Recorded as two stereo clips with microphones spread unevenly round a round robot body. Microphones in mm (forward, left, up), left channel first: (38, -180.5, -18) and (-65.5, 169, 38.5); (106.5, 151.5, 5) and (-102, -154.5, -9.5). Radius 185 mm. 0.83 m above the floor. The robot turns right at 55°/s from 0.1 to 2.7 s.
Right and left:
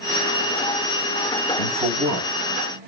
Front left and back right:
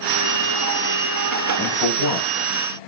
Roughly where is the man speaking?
Ahead right.